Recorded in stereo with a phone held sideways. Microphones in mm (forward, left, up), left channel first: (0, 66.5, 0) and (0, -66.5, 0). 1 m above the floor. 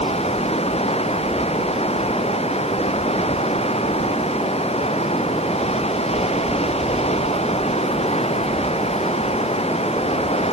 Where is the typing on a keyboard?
I don't hear typing on a keyboard.